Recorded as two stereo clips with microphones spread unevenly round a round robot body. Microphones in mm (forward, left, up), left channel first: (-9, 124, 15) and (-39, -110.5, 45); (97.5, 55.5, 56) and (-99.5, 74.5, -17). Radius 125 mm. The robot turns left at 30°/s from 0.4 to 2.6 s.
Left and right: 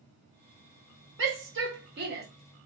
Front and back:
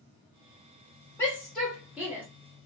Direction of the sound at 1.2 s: 105° right.